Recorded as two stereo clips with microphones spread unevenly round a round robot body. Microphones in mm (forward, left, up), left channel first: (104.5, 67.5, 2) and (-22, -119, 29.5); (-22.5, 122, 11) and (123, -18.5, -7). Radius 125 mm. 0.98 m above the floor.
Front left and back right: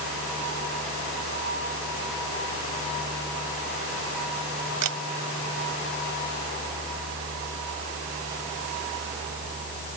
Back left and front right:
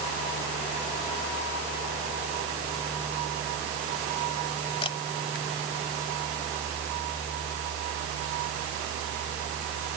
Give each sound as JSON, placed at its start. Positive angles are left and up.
{"t": 4.8, "sound": "a camera shutter", "azimuth_deg": -155}